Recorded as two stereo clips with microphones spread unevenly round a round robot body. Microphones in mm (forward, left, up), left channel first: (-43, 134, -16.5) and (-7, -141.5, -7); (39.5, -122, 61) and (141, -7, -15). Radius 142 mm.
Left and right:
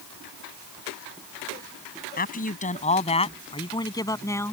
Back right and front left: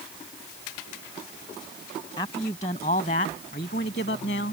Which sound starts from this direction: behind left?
A man speaking, at 2.2 s.